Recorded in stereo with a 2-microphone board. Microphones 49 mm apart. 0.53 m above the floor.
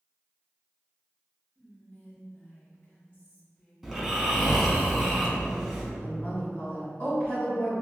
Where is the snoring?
Centre (ahead or behind), 0.7 m.